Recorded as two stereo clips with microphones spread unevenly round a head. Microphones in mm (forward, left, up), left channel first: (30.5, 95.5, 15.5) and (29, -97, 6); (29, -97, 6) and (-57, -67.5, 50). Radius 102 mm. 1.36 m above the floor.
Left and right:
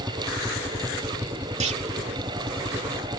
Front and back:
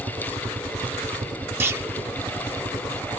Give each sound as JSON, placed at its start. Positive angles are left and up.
{"t": 0.0, "sound": "a helicopter", "azimuth_deg": -170}
{"t": 1.6, "sound": "a clunk", "azimuth_deg": -150}